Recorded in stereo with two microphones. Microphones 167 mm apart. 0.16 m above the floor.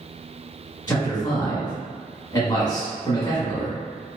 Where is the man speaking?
25° left (ahead or behind), 1.6 m.